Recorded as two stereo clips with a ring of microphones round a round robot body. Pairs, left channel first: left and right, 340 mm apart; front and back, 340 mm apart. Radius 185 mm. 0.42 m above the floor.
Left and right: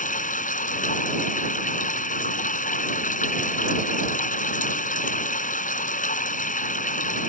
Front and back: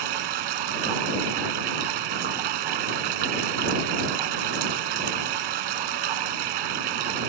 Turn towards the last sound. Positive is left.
turn(degrees=155)